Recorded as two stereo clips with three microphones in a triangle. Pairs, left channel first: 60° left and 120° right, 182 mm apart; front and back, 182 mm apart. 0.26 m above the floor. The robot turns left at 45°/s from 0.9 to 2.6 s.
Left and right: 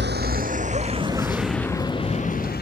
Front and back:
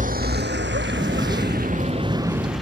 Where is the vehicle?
135° right; by 2.6 s 90° left.